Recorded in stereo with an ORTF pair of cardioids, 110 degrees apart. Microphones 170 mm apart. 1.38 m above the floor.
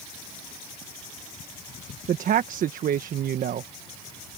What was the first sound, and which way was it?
A woman speaking, 55° right.